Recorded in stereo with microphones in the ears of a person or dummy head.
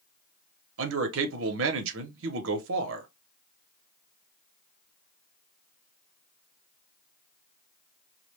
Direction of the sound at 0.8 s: 65° right (ahead or behind).